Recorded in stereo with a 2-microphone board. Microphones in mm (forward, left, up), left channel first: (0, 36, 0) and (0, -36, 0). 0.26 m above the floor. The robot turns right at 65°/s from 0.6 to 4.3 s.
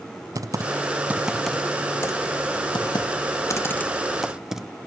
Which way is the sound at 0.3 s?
50° right (ahead or behind).